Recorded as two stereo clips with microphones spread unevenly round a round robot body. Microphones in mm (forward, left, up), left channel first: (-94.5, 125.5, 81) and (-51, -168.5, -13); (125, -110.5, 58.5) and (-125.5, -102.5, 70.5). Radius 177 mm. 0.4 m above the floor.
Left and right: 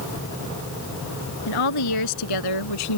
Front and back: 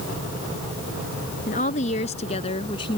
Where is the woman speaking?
65° left; by 3.0 s 75° left.